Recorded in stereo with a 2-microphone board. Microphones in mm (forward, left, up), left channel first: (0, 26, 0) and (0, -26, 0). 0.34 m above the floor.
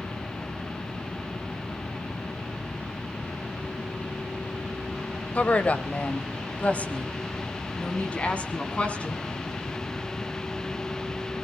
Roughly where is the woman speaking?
Left.